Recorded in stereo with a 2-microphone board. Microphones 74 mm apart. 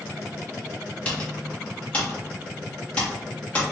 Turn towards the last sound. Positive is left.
turn(degrees=15)  # may be behind; listen again after turning